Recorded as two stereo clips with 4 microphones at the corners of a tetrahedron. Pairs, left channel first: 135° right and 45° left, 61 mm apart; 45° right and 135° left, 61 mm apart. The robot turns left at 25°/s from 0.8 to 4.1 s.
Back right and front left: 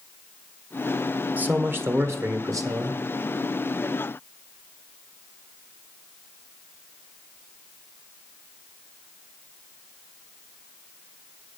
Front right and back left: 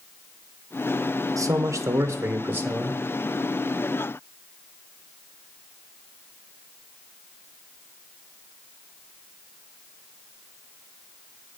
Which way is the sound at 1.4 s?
110° left.